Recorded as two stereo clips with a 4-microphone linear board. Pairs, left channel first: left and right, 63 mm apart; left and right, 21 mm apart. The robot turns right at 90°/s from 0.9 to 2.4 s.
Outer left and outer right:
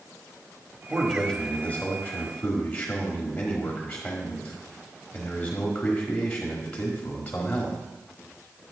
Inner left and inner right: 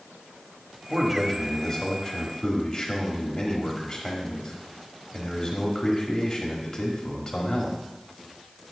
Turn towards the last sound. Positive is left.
turn(degrees=20)  # may be behind; listen again after turning